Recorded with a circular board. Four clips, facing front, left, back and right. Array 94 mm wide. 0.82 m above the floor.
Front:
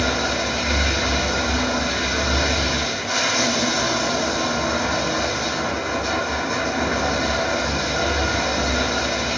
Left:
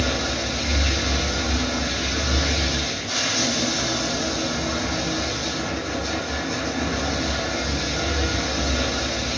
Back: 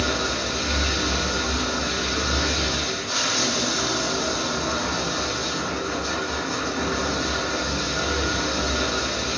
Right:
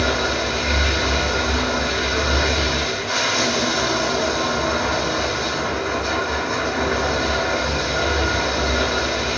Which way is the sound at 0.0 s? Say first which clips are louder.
Right 4 dB, front 3 dB; 55° right.